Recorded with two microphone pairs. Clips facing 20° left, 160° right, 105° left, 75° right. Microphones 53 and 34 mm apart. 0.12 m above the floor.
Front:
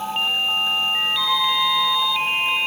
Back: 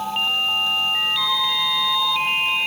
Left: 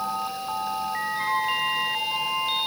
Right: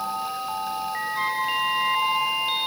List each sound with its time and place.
1.2 s a flute: 75° right, 3.5 m